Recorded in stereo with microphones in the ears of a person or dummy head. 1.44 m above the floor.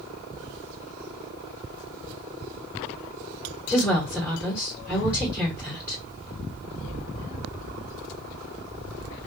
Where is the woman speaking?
5° left (ahead or behind), 1.7 m.